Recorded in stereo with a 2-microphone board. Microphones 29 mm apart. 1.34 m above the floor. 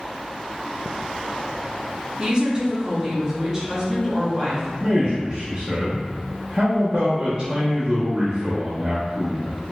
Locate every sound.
2.2 s a woman speaking: 35° right (ahead or behind), 0.8 m; by 4.7 s 20° right (ahead or behind), 2 m
4.8 s a man speaking: 15° right (ahead or behind), 0.7 m